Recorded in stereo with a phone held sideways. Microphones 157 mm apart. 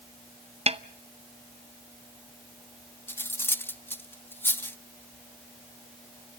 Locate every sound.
0.7 s a snare drum: 40° right (ahead or behind), 0.6 m
3.1 s cutlery clinking: 15° left (ahead or behind), 0.6 m